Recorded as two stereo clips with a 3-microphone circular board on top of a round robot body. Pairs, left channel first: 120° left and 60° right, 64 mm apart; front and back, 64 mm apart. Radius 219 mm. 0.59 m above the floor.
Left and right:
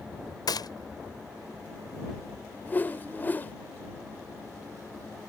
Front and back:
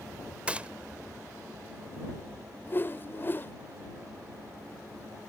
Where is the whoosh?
60° left.